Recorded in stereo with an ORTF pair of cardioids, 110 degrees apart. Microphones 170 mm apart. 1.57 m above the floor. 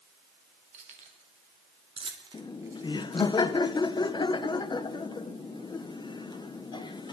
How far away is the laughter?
About 0.9 m.